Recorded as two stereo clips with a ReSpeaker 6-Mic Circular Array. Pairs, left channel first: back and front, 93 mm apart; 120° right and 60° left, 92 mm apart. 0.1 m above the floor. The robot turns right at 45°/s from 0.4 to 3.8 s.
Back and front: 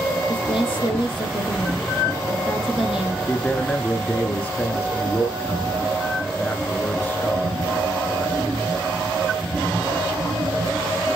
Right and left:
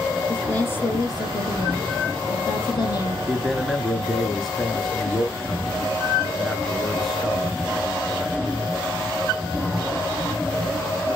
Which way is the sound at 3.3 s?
130° left.